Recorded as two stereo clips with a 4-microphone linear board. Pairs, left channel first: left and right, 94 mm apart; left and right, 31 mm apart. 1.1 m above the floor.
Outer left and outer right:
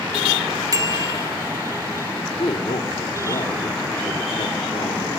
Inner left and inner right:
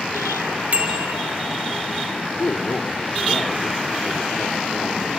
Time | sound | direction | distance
0.7 | a bicycle bell | 40° right (ahead or behind) | 3.5 m
2.1 | a man speaking | 75° left (ahead or behind) | 2.5 m